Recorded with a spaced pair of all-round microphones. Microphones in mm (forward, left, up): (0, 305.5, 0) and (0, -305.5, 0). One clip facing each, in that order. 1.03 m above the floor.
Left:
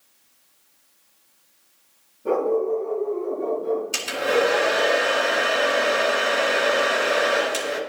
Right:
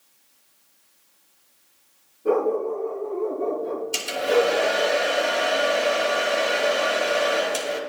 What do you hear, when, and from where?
2.2 s a dog barking: 25° left (ahead or behind), 8 m; by 4.9 s 35° left (ahead or behind), 5.5 m
3.9 s a hair dryer: 80° left, 2.5 m